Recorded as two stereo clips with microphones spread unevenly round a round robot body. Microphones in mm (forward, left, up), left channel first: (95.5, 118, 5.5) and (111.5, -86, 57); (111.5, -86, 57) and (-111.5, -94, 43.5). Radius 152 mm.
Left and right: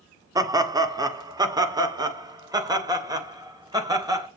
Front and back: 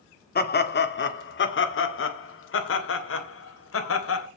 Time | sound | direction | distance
0.3 | laughter | 5° right | 1.7 m